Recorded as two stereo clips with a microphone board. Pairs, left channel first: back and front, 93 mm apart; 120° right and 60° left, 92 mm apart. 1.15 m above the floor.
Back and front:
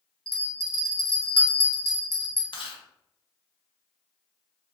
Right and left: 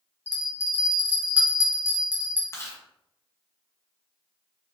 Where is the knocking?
I don't hear knocking.